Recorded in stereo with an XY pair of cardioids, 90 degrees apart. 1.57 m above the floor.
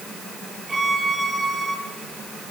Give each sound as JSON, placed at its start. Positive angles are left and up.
{"t": 0.7, "sound": "a violin", "azimuth_deg": -30, "distance_m": 10.0}